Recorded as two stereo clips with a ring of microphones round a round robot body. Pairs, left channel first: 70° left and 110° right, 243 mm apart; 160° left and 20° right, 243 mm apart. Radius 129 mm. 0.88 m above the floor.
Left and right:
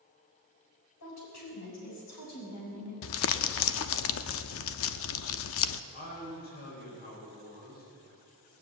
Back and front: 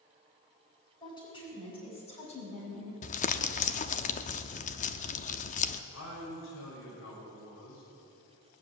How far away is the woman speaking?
About 7.5 m.